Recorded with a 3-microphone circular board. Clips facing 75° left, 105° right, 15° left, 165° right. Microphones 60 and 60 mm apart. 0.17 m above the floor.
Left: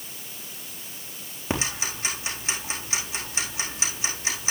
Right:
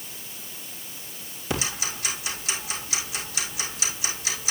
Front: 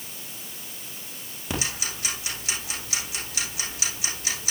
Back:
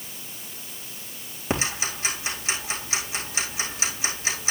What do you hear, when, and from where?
1.5 s ticking: 130° left, 3.5 m